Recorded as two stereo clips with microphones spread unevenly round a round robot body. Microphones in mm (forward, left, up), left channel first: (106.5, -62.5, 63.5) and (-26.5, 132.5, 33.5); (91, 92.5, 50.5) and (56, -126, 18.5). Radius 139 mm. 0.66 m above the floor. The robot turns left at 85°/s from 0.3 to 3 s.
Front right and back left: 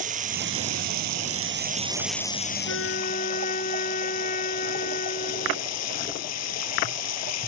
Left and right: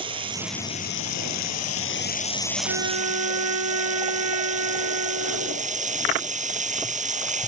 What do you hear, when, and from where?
0.0 s running water: 170° right; by 7.5 s 40° right
2.7 s a trumpet: 90° right; by 5.7 s 120° right